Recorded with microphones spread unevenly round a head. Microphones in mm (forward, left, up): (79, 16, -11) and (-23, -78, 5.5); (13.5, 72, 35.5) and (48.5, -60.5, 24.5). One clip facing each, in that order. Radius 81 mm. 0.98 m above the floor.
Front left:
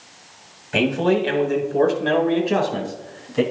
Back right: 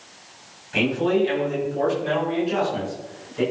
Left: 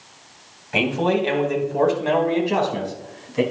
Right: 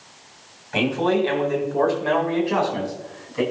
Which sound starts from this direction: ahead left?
A man speaking, at 0.7 s.